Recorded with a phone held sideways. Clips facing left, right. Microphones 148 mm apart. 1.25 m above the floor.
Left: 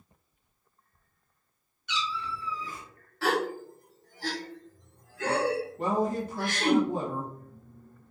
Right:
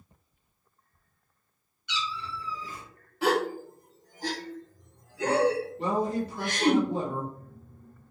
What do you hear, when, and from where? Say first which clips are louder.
1.9 s a cat meowing: left 1 dB; 50° left (ahead or behind), 1.1 m
3.2 s a gasp: right 2 dB; 20° right (ahead or behind), 0.6 m
5.8 s a woman speaking: left 1 dB; 50° left (ahead or behind), 1.1 m